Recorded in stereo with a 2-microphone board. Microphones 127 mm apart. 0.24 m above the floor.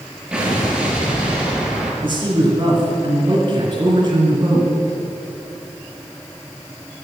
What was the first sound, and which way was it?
An explosion, 5° right (ahead or behind).